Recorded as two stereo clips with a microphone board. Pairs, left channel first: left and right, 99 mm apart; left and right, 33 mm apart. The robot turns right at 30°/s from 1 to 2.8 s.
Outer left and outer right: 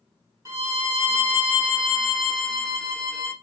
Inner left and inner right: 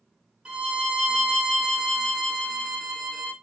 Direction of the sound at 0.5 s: 40° right.